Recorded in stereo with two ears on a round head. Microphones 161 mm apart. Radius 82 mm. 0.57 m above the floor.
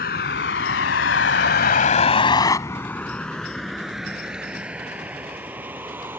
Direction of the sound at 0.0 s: 55° left (ahead or behind).